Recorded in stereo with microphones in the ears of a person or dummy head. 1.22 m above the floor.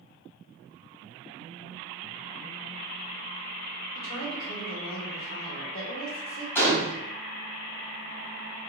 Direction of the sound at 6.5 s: 15° left (ahead or behind).